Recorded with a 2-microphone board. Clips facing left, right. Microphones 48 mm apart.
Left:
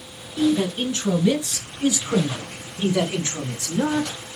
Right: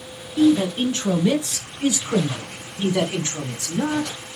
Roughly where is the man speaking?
Right.